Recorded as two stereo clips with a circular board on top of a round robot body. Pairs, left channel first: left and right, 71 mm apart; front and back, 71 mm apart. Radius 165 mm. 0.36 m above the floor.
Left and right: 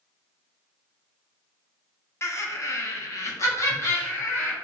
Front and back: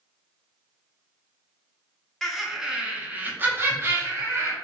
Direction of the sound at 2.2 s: 80° left.